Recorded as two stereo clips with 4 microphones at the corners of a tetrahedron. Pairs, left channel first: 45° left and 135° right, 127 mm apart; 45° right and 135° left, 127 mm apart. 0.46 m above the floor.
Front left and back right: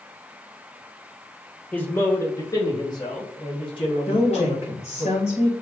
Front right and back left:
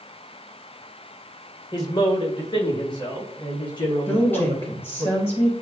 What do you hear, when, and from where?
1.7 s a man speaking: 25° right, 1.7 m; by 5.1 s 10° left, 5.5 m
4.1 s a woman speaking: 25° left, 2.5 m